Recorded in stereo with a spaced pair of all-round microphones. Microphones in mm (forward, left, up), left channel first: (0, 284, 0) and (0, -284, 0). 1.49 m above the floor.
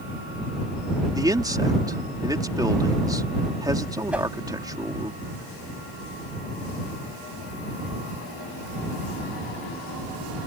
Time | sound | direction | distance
1.1 | a man speaking | 5° right (ahead or behind) | ?
4.1 | a whoosh | centre (ahead or behind) | ?